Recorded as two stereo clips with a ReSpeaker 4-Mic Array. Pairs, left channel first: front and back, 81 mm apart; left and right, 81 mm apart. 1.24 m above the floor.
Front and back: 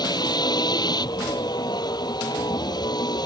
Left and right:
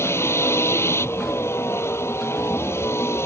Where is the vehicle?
30° left.